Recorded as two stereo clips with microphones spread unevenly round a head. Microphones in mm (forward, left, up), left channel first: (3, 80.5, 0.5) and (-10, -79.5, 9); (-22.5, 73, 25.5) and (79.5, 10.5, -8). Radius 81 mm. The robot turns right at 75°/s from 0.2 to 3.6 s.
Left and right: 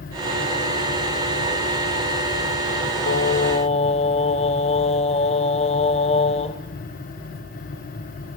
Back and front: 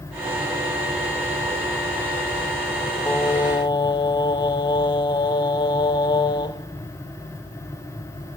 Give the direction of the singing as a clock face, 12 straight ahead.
9 o'clock.